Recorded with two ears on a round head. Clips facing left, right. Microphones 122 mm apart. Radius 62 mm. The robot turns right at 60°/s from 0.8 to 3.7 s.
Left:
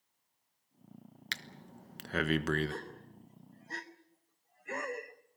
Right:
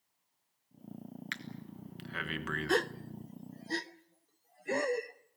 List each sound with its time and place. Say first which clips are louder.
1.3 s breathing: right 3 dB; 40° left (ahead or behind), 1.2 m; by 2.7 s 35° left (ahead or behind), 1.2 m
2.7 s a gasp: right 12 dB; 80° right, 0.7 m; by 5.4 s 35° right (ahead or behind), 0.7 m